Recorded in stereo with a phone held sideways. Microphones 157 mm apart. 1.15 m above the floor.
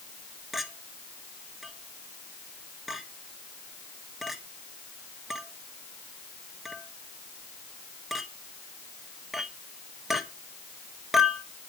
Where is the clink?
Centre (ahead or behind), 1.4 m.